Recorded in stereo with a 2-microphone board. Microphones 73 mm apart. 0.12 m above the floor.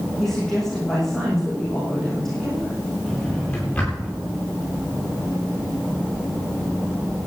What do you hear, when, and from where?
0.2 s a woman speaking: 5° left (ahead or behind), 6 m
3.1 s a drawer: 15° left (ahead or behind), 9 m